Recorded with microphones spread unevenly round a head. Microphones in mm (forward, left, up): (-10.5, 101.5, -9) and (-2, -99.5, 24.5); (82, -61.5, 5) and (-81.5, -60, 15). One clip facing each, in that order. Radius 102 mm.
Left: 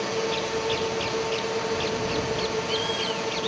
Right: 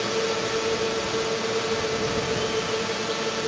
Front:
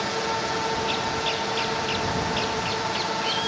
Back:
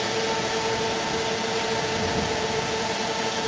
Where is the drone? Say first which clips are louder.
Right 2 dB, back 2 dB; 150° right.